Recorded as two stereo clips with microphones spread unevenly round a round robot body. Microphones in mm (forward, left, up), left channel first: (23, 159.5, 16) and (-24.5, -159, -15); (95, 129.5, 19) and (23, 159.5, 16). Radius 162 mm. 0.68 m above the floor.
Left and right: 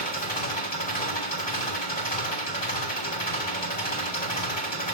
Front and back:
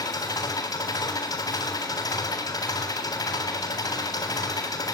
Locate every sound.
0.0 s an engine running: 15° left, 3.5 m